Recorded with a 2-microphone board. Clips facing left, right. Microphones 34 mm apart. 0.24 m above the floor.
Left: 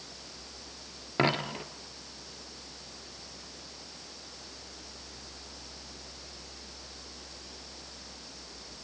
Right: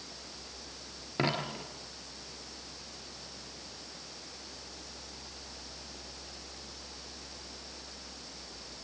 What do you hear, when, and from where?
1.2 s a dropped coin: 20° left (ahead or behind), 2.5 m